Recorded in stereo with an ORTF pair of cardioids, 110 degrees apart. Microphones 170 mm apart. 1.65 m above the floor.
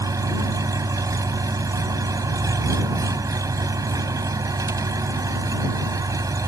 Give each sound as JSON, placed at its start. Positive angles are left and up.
{"t": 0.0, "sound": "an engine running", "azimuth_deg": -20}